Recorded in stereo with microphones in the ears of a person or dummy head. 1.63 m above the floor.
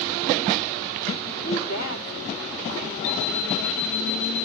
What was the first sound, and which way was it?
A woman speaking, 20° left (ahead or behind).